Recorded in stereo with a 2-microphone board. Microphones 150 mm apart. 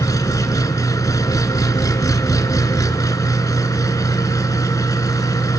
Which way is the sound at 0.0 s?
25° left (ahead or behind).